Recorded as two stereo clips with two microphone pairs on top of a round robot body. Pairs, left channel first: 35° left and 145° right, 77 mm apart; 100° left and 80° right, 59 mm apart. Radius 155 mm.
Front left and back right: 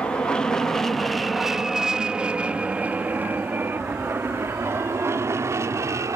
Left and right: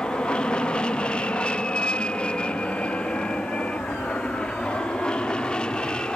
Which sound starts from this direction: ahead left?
An aircraft, at 0.0 s.